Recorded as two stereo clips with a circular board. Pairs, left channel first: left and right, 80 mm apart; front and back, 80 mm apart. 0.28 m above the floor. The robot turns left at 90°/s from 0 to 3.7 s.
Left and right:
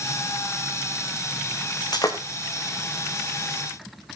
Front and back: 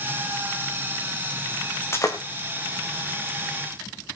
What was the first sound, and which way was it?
Breaking glass, 70° left.